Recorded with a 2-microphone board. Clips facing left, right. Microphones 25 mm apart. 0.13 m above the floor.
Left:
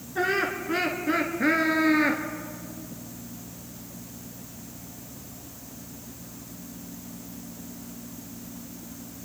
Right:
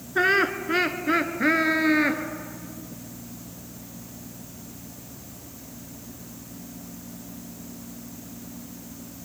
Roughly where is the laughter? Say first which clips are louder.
Right 5 dB; right.